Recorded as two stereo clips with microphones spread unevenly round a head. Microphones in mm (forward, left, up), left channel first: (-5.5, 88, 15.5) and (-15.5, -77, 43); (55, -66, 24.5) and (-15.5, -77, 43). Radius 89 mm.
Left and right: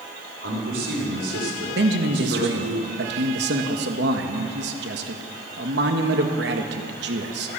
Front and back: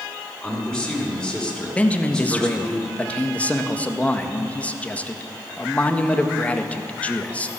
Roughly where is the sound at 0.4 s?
Right.